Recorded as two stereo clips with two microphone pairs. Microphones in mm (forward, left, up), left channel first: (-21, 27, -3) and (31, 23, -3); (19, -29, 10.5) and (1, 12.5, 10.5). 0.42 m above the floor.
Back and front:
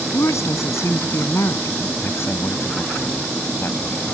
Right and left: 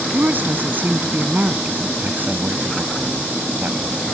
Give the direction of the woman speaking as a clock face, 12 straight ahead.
7 o'clock.